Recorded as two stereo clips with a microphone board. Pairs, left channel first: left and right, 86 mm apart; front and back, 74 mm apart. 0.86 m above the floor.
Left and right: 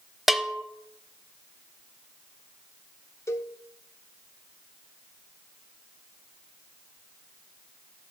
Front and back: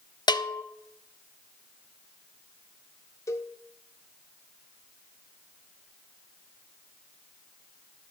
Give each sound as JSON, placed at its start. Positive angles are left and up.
{"t": 0.3, "sound": "a bell", "azimuth_deg": 0, "distance_m": 0.5}
{"t": 3.3, "sound": "a cowbell", "azimuth_deg": 40, "distance_m": 0.8}